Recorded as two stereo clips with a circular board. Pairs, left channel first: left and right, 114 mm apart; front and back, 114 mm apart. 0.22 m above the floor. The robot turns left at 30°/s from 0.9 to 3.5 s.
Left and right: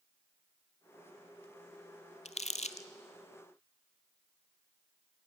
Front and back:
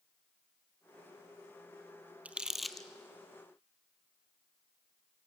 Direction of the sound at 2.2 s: 100° left.